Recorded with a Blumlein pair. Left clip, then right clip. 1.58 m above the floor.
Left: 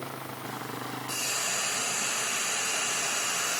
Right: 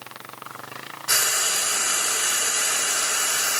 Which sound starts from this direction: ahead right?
Frying, at 1.1 s.